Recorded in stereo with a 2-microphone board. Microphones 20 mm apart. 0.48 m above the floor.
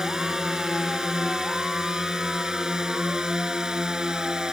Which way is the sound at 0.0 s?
30° right (ahead or behind).